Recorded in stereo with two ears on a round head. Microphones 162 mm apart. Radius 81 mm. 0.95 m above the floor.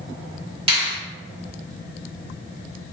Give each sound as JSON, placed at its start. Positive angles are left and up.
{"t": 0.7, "sound": "a finger snap", "side_deg": -30, "distance_m": 1.5}